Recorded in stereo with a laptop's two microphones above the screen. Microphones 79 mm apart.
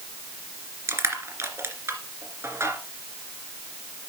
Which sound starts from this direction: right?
Crushing, at 0.9 s.